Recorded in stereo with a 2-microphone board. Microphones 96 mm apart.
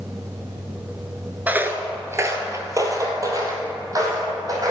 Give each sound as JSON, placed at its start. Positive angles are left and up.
{"t": 1.5, "sound": "footsteps", "side_deg": -15, "distance_m": 0.6}